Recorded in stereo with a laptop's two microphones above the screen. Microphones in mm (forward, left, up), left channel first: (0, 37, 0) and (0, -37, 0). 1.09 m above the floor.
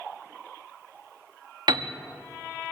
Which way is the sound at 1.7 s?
70° right (ahead or behind).